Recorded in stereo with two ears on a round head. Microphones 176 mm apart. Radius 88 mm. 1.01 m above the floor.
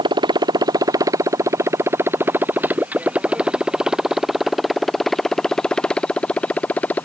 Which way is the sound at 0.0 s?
25° right (ahead or behind).